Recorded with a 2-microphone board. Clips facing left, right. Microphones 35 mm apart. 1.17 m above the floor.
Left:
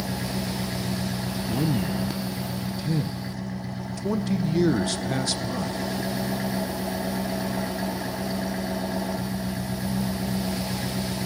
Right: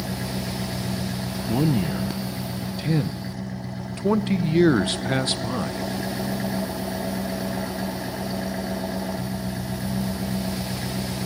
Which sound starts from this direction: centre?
An engine running, at 0.0 s.